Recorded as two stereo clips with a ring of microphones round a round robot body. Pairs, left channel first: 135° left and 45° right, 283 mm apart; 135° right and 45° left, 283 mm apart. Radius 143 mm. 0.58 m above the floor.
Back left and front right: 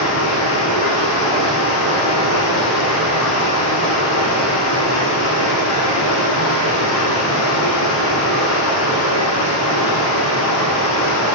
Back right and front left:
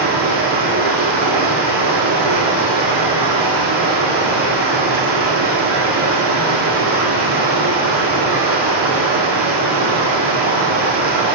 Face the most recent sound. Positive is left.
turn(degrees=105)